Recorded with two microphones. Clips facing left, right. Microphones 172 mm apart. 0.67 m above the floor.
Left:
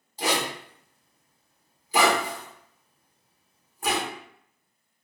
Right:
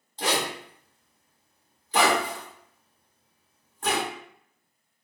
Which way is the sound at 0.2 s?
10° left (ahead or behind).